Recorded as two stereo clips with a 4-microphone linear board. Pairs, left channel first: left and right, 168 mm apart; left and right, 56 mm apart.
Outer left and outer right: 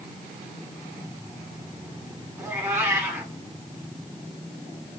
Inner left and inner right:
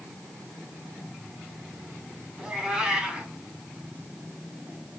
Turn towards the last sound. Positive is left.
turn(degrees=-15)  # may be behind; listen again after turning